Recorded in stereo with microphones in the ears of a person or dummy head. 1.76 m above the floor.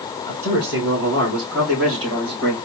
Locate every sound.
0.3 s a man speaking: 65° right (ahead or behind), 3.5 m